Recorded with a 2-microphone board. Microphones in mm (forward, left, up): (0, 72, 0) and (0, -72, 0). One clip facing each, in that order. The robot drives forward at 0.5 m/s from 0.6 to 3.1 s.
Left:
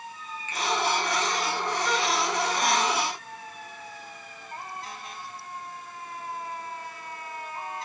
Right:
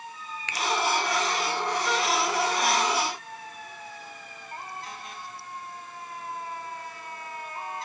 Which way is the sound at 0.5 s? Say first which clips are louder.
Even; 70° right (ahead or behind).